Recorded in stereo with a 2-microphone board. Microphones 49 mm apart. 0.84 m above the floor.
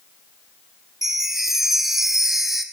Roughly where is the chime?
Centre.